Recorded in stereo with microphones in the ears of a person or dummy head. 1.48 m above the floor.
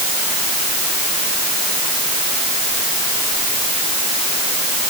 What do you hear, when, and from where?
Only background noise.